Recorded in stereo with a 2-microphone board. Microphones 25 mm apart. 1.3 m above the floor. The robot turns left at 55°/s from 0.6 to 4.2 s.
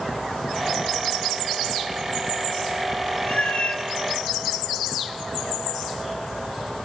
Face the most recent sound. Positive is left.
turn(degrees=40)